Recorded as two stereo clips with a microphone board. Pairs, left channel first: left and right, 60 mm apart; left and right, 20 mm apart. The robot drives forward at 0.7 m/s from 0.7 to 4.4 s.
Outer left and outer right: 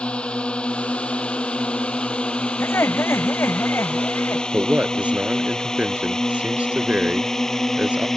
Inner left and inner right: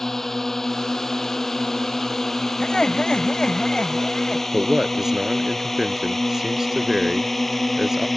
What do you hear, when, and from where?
0.0 s a drone: 20° left (ahead or behind); by 8.2 s 10° left (ahead or behind)
2.6 s laughter: 45° left (ahead or behind)
4.5 s a man speaking: 25° right (ahead or behind)